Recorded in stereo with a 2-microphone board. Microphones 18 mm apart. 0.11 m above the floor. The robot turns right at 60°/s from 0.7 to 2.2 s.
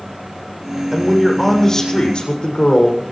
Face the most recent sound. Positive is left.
turn(degrees=60)